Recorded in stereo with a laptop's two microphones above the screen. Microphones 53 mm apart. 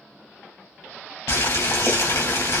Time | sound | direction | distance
1.3 | boiling | 65° left (ahead or behind) | 1.6 m